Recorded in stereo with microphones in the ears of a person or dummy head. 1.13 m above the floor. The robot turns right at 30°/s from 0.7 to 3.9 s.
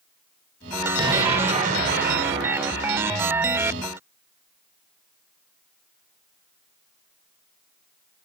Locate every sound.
1.0 s an explosion: 160° right, 1.2 m; by 3.1 s 95° right, 1.2 m